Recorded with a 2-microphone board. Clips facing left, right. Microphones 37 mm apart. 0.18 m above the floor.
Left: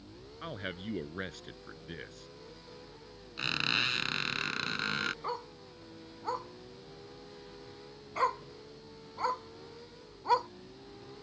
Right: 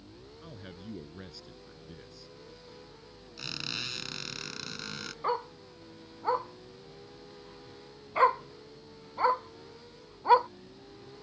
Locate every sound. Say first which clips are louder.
0.4 s a man speaking: left 8 dB; 60° left (ahead or behind)
3.4 s a squeak: left 7 dB; 40° left (ahead or behind)
5.2 s a dog barking: right 6 dB; 30° right (ahead or behind)